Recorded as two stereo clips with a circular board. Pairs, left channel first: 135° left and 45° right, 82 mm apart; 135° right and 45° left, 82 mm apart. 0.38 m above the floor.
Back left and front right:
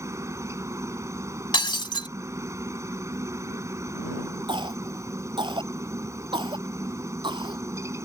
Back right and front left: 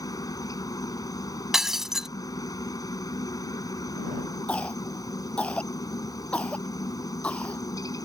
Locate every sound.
0.0 s a helicopter: 95° right
1.5 s breaking glass: 130° left
4.5 s a cough: 60° right